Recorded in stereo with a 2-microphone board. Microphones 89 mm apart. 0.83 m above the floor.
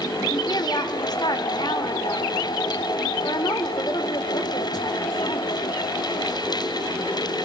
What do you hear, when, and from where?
0.3 s a woman speaking: 50° left (ahead or behind), 3 m